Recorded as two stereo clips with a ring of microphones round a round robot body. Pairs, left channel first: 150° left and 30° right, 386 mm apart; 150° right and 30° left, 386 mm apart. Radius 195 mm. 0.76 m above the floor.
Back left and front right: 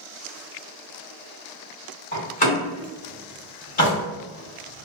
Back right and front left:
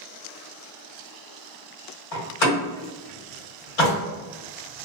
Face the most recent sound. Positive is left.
turn(degrees=-140)